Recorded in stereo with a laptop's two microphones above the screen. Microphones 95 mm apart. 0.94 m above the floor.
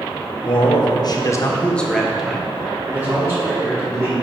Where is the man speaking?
60° left (ahead or behind), 1.0 m; by 4.1 s 30° right (ahead or behind), 2.5 m.